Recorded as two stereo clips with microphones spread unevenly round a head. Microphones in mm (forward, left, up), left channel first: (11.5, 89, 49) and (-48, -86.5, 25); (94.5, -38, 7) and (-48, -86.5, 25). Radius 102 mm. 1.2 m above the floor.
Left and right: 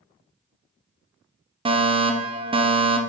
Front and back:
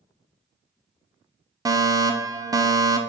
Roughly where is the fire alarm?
Right.